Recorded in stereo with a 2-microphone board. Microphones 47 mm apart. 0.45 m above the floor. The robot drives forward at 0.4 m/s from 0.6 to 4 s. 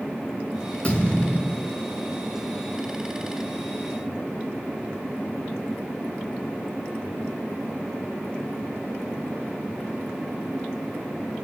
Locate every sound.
0.8 s a thud: 30° left (ahead or behind), 4 m